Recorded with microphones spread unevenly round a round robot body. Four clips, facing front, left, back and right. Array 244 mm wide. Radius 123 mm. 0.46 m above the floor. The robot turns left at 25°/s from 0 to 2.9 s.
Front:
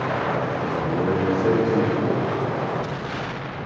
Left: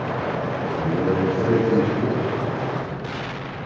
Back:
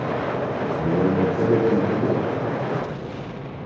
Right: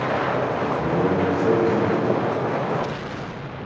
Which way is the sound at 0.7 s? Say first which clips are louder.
Left 1 dB, back 3 dB; 170° right.